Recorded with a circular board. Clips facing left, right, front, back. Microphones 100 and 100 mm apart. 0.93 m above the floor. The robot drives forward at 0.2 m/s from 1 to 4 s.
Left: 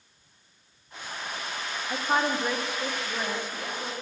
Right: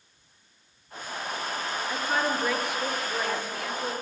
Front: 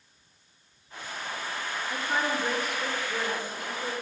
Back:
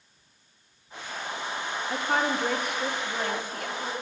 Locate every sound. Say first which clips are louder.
1.9 s a woman speaking: left 2 dB, back 3 dB; 150° left, 1.1 m; by 3.9 s 155° left, 1.5 m